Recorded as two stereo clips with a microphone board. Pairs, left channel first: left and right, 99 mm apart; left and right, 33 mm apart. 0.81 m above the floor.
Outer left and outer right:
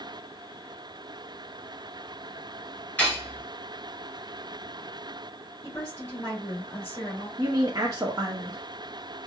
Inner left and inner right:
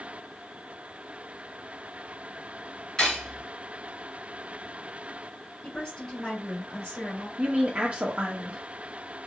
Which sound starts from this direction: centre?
Cutlery clinking, at 3.0 s.